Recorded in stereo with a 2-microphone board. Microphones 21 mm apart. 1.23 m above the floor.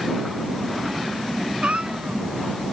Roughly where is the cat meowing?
Right.